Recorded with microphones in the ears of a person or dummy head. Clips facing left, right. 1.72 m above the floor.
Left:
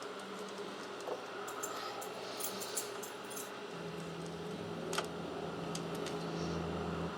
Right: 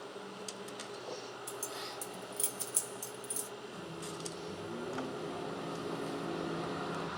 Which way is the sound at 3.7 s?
75° right (ahead or behind).